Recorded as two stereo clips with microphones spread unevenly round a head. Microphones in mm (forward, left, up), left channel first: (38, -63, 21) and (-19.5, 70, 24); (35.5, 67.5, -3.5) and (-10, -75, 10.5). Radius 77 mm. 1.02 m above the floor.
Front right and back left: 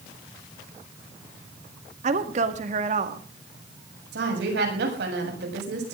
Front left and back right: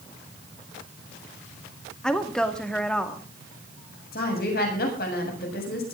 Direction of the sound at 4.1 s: 105° left.